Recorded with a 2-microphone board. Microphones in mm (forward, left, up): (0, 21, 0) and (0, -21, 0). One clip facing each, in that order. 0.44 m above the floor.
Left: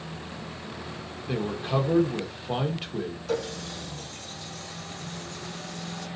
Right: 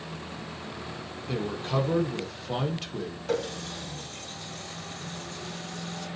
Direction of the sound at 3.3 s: 25° right (ahead or behind).